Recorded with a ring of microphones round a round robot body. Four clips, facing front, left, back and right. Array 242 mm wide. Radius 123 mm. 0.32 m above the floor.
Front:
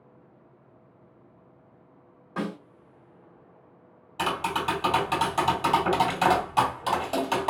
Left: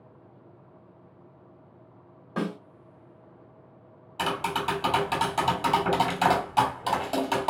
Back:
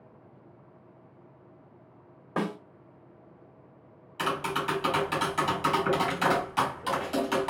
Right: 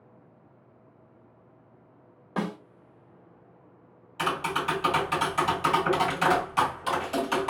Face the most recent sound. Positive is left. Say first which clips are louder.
# even, front 2 dB
turn(degrees=45)